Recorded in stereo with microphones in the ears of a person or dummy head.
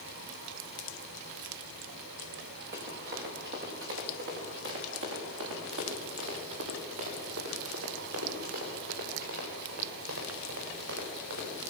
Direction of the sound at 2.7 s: 45° right (ahead or behind).